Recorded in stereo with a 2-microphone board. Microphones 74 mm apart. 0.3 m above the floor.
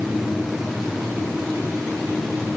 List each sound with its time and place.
Only background noise.